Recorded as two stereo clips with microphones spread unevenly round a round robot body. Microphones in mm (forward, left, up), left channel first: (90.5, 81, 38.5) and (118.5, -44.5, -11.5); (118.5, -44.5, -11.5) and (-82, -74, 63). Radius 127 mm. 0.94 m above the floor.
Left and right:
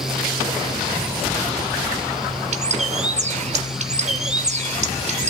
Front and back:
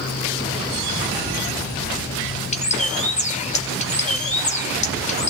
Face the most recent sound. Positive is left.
turn(degrees=-45)